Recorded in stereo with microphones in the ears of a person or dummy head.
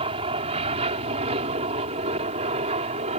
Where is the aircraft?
30° right (ahead or behind); by 3.2 s 35° right (ahead or behind).